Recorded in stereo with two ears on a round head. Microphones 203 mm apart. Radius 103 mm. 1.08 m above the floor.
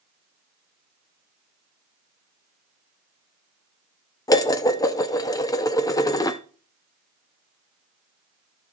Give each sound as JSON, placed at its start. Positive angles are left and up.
{"t": 4.3, "sound": "dishes clattering", "side_deg": 15, "distance_m": 0.6}